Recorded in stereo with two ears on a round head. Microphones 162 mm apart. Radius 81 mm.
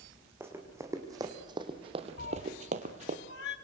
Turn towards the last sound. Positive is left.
turn(degrees=60)  # may be behind; listen again after turning